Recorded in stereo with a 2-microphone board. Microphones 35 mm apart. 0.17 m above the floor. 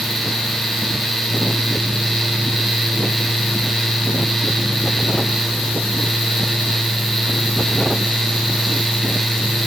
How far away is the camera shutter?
No camera shutter in this recording.